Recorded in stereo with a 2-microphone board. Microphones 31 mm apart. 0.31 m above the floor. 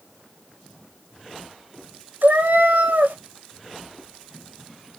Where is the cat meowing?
75° right (ahead or behind), 1.0 m.